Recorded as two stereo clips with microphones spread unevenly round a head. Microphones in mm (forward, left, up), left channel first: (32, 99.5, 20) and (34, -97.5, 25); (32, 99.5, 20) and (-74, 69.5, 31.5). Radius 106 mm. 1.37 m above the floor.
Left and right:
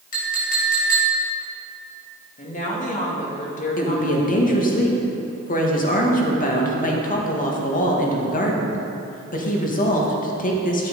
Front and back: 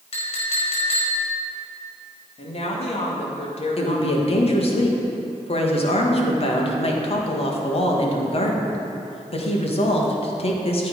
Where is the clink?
45° left, 4.5 m.